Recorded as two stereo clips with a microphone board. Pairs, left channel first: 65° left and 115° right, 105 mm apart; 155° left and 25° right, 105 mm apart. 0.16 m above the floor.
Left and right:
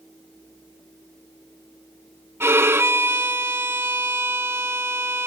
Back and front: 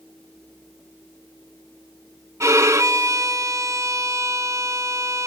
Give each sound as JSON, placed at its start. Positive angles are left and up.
{"t": 2.4, "sound": "a violin", "azimuth_deg": -60, "distance_m": 0.7}